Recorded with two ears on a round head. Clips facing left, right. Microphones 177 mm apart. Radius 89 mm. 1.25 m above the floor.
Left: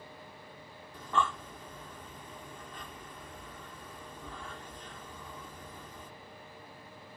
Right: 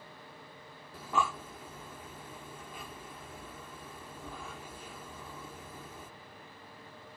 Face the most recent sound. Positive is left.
turn(degrees=-10)  # may be behind; listen again after turning